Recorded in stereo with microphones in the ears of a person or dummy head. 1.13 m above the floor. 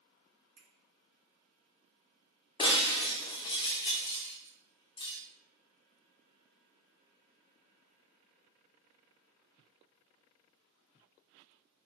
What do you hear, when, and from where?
0.6 s a finger snap: 70° right (ahead or behind), 1.8 m
2.6 s breaking glass: 30° left (ahead or behind), 0.7 m